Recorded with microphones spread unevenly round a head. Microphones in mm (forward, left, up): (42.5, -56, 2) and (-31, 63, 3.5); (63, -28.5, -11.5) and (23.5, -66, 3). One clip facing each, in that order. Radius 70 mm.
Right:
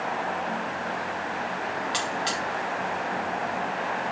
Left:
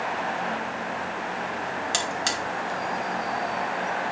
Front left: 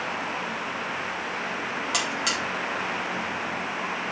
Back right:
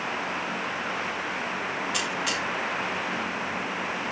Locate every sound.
1.9 s a buzzer: 90° left, 1.8 m